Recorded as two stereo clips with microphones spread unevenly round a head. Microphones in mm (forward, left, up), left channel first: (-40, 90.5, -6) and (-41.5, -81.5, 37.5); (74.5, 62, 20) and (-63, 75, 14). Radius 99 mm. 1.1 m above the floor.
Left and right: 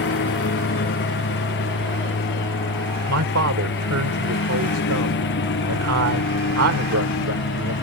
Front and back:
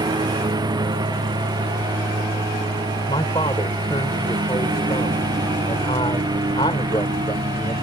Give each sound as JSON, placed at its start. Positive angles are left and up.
{"t": 0.0, "sound": "a lawn mower", "azimuth_deg": 115}
{"t": 3.1, "sound": "a man speaking", "azimuth_deg": -75}